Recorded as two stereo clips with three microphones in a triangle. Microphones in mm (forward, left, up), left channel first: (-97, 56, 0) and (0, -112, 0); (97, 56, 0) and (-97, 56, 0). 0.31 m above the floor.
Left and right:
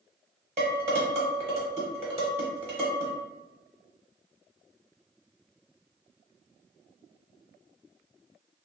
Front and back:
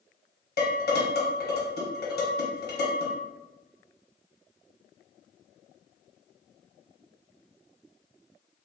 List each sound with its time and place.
0.6 s dishes clattering: 15° right, 1.0 m